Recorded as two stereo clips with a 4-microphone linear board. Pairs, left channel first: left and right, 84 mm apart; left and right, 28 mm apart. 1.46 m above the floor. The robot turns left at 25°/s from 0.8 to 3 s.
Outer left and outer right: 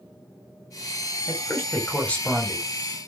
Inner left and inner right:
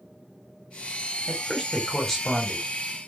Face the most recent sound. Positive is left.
turn(degrees=-5)